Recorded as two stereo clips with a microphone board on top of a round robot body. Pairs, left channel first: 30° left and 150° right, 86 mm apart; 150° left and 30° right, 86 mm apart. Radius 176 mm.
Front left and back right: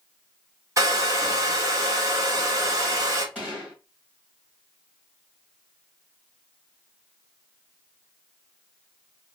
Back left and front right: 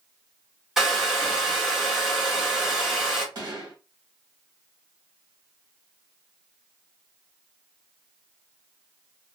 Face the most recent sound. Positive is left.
turn(degrees=-75)